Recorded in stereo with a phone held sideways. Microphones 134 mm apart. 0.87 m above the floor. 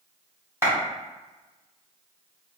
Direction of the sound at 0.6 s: 15° right (ahead or behind).